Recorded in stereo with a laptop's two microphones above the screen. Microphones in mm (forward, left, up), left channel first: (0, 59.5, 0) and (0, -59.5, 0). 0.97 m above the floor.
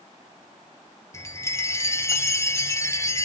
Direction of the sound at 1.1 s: 25° left (ahead or behind).